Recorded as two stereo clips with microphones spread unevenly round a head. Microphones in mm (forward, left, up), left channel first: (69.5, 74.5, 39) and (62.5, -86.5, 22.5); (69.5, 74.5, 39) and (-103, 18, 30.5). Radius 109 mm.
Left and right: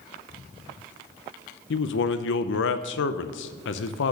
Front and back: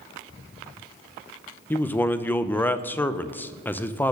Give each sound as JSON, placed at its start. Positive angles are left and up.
{"t": 1.7, "sound": "a man speaking", "azimuth_deg": 100, "distance_m": 0.5}